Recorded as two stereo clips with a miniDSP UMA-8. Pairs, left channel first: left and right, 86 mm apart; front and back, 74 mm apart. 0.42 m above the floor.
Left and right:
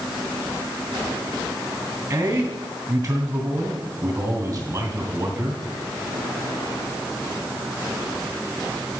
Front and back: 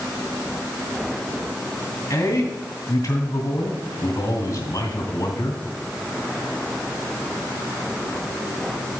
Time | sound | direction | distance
2.1 | a man speaking | 45° right | 2.5 m